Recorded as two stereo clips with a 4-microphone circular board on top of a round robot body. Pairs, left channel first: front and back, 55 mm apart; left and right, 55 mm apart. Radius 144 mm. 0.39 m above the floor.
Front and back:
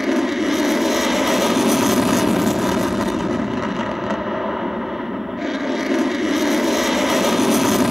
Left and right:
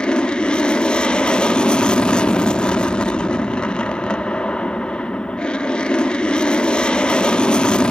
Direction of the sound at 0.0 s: 105° left.